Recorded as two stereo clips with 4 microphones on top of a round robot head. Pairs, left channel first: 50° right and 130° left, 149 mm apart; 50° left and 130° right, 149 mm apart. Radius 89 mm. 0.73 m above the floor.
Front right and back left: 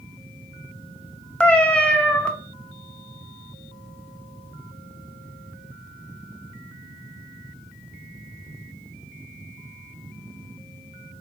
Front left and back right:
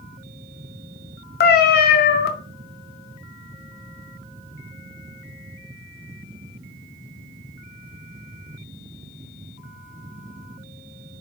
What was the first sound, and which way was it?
A cat meowing, 30° left.